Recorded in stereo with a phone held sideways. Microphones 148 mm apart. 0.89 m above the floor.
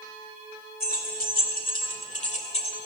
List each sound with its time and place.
0.8 s keys jangling: 85° left, 2 m; by 2.8 s 40° left (ahead or behind), 1.9 m